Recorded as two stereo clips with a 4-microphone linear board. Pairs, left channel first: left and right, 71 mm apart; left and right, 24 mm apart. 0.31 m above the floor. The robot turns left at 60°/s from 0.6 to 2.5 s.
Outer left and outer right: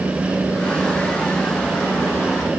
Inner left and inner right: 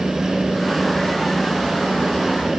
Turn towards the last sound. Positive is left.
No sound to turn to.